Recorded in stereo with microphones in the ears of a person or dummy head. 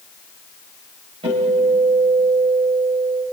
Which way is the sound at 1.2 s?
35° right (ahead or behind).